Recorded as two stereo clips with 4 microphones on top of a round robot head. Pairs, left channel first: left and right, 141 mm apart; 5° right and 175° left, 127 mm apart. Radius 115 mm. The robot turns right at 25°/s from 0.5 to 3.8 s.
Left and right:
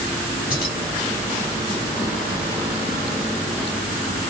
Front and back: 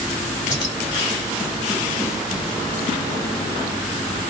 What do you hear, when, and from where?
0.5 s keys jangling: 50° left, 2.5 m; by 0.8 s 55° left, 2.5 m